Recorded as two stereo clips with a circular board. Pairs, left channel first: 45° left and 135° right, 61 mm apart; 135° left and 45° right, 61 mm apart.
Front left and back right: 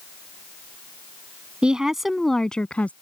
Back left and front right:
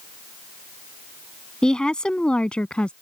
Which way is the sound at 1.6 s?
170° right.